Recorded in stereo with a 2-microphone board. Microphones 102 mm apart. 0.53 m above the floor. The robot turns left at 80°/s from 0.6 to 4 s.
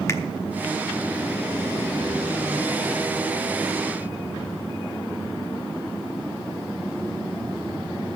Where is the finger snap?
30° left (ahead or behind), 0.9 m.